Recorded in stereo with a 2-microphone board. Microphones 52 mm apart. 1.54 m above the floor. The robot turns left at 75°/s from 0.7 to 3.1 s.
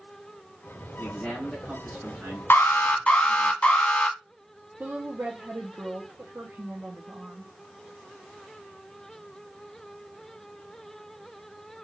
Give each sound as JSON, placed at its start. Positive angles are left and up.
{"t": 1.0, "sound": "a man speaking", "azimuth_deg": 40, "distance_m": 2.0}
{"t": 2.5, "sound": "an alarm", "azimuth_deg": 85, "distance_m": 0.8}
{"t": 4.8, "sound": "a woman speaking", "side_deg": -40, "distance_m": 0.7}